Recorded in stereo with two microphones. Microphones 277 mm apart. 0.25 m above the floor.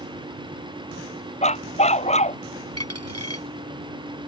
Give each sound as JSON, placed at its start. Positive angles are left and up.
{"t": 1.4, "sound": "a dog barking", "side_deg": 25}
{"t": 2.8, "sound": "a dropped coin", "side_deg": -60}